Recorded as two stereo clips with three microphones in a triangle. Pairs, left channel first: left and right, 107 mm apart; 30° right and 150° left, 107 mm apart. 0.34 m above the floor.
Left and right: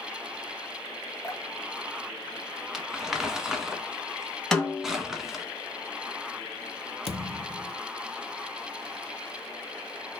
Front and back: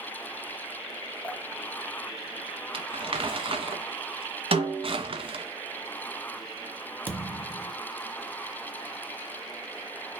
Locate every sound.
1.2 s dripping: 40° left, 1.0 m
2.7 s crumpling: 175° right, 1.2 m
4.5 s a snare drum: 175° left, 1.7 m
7.1 s a thud: 80° left, 1.3 m